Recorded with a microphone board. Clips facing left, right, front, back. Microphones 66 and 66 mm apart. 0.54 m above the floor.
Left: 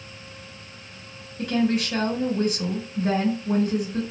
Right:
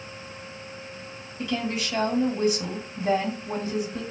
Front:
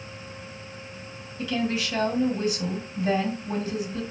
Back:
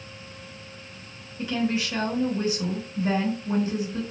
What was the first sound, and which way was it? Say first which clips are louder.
A woman speaking: left 6 dB, back 1 dB; 120° left.